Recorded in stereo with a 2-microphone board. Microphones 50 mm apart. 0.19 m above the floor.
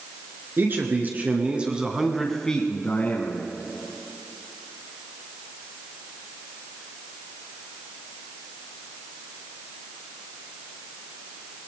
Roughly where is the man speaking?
Right.